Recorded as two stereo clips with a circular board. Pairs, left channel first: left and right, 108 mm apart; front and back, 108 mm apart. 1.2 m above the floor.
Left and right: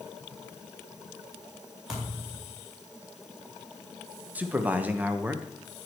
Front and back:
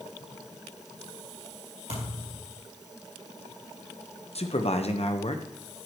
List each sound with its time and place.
1.9 s a thud: straight behind, 4 m
4.3 s a man speaking: 15° right, 1.1 m